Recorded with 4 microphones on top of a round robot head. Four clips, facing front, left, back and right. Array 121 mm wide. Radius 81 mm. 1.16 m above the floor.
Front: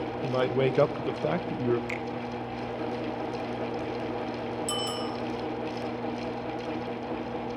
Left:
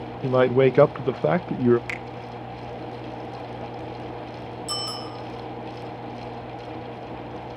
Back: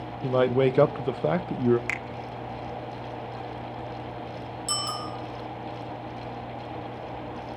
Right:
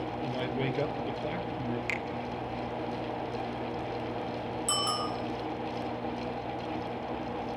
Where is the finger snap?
150° left, 1.0 m.